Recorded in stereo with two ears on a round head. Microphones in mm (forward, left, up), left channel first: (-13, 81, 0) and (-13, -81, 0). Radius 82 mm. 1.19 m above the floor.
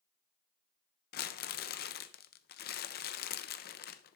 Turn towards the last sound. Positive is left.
turn(degrees=55)  # may be behind; listen again after turning